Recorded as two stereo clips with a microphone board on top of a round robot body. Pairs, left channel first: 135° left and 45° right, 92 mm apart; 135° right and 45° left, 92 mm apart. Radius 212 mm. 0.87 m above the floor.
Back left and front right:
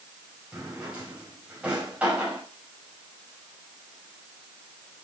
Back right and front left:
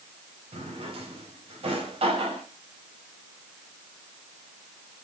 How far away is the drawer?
About 3.5 m.